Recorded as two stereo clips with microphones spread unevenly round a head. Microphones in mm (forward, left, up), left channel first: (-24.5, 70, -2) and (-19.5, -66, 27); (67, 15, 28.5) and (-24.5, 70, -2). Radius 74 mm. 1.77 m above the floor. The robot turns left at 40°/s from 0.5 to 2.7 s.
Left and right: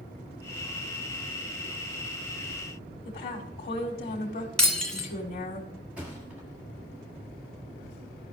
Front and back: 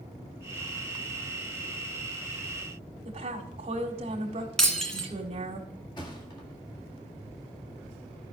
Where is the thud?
20° right, 1.7 m.